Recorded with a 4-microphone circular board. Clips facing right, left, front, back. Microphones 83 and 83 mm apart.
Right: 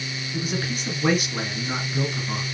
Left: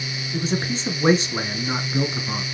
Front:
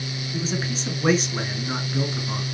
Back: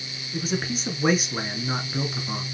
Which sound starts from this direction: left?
A man speaking, at 0.3 s.